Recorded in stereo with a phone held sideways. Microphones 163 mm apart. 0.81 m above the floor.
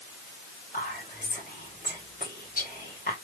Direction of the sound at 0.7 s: 60° left (ahead or behind).